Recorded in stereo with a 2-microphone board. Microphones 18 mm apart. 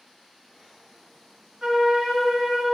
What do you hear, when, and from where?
1.6 s a flute: 45° right (ahead or behind), 2.5 m